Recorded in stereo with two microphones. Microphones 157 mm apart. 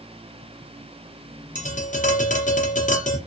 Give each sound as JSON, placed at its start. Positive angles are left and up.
{"t": 1.6, "sound": "tapping", "side_deg": 50, "distance_m": 0.8}